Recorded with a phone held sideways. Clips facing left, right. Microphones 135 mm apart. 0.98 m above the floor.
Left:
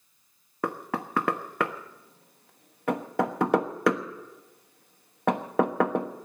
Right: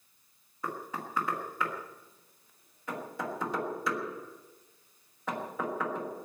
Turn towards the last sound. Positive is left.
turn(degrees=75)  # may be behind; listen again after turning